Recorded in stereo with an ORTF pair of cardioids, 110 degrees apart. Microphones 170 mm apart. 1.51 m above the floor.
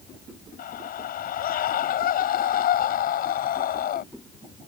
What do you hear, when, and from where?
0.6 s a scream: 60° left